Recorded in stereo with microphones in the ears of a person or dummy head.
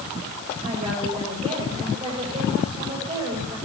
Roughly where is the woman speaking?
Right.